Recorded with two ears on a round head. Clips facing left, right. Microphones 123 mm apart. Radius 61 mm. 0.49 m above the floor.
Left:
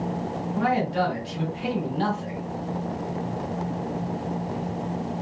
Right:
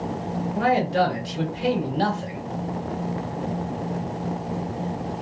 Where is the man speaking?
55° right (ahead or behind), 1.8 m.